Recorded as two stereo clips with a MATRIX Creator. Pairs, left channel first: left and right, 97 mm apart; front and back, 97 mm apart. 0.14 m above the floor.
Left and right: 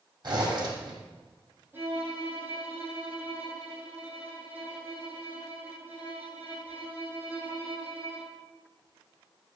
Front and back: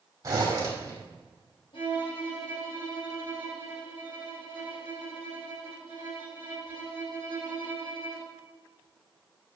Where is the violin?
20° right, 6.5 m.